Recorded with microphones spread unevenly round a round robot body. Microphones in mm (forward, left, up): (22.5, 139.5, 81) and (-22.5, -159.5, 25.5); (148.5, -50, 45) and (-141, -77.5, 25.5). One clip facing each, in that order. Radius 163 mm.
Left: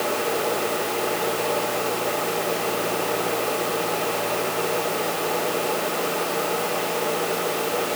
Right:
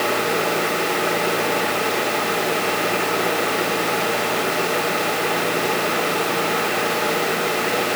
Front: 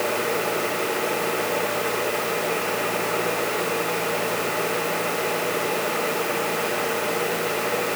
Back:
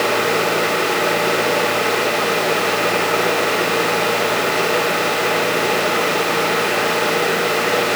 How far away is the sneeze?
I don't hear a sneeze.